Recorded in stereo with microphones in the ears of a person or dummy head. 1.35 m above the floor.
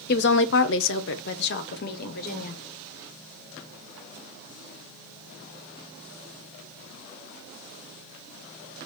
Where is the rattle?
No rattle in this recording.